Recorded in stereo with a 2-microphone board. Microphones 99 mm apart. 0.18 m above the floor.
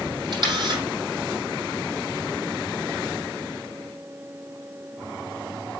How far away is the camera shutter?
About 6.5 m.